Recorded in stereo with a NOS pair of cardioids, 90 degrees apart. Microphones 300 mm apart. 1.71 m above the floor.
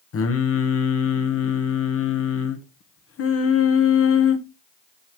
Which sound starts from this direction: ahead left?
Singing, at 0.1 s.